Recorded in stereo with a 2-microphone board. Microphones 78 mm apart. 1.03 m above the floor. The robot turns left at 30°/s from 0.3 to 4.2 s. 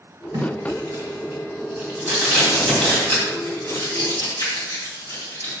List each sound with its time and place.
0.3 s tape being pulled: 55° right (ahead or behind), 2.5 m; by 5.5 s 55° left (ahead or behind), 2.5 m